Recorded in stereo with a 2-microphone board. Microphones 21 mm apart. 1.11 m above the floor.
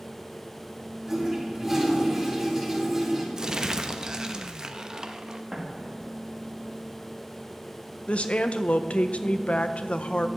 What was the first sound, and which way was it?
A toilet flushing, 15° right (ahead or behind).